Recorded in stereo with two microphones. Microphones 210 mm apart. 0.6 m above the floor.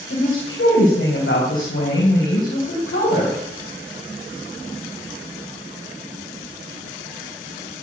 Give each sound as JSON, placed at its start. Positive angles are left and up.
{"t": 0.1, "sound": "a woman speaking", "side_deg": 75, "distance_m": 4.0}